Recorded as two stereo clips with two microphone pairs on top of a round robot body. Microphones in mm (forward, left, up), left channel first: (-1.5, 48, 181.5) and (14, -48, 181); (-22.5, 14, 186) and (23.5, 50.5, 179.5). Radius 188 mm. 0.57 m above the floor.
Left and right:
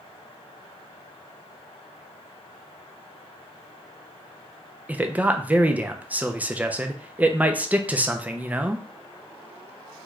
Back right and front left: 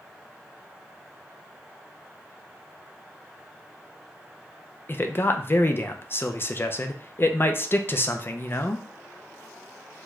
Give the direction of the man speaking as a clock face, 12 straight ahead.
5 o'clock.